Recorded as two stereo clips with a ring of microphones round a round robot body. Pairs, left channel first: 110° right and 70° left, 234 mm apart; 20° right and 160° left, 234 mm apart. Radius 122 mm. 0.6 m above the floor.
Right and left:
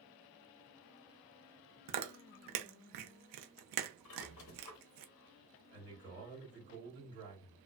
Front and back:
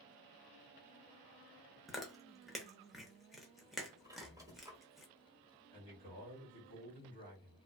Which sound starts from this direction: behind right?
A squeak, at 4.0 s.